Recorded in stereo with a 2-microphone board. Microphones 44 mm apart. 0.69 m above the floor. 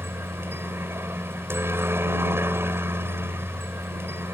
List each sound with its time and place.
0.0 s a helicopter: 65° right (ahead or behind)